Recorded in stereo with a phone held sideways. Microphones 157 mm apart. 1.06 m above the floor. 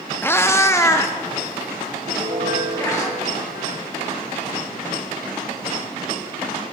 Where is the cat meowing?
15° left (ahead or behind), 0.5 m; by 3.1 s 20° left (ahead or behind), 2.5 m.